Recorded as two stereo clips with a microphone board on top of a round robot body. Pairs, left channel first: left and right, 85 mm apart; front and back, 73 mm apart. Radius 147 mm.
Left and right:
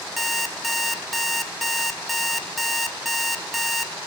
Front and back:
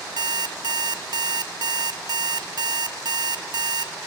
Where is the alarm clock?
Straight behind, 1.0 m.